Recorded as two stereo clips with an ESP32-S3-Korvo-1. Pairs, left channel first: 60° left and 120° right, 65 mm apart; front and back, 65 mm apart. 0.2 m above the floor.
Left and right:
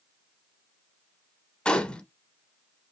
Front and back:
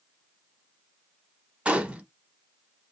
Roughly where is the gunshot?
Behind left.